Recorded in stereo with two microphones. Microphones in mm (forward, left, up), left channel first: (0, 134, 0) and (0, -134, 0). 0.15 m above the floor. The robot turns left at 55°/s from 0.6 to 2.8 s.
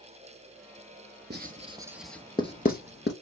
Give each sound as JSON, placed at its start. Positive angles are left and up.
{"t": 1.3, "sound": "writing", "side_deg": -40, "distance_m": 0.6}